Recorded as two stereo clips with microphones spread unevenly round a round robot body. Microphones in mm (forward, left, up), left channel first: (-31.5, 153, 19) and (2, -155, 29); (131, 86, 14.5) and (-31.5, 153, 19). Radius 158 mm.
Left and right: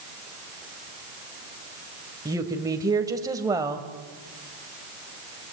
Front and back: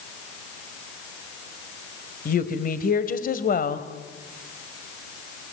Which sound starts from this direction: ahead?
A woman speaking, at 2.2 s.